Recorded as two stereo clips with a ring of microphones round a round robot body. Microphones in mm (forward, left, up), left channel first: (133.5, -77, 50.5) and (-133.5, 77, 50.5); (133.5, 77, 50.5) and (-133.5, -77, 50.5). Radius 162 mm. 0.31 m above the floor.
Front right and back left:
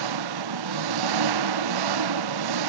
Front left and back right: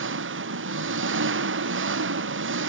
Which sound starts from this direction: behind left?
An engine running, at 0.0 s.